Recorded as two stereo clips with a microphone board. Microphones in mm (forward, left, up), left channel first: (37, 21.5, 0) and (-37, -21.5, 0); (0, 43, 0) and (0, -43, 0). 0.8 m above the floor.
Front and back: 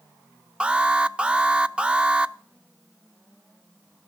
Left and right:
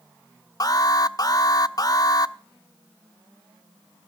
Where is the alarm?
130° left, 0.5 m.